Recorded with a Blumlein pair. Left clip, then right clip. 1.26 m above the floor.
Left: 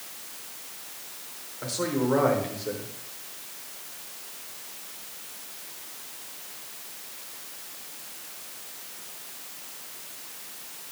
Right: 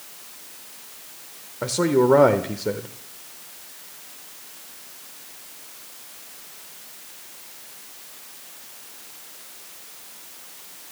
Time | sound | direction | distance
1.6 | a man speaking | 35° right | 0.9 m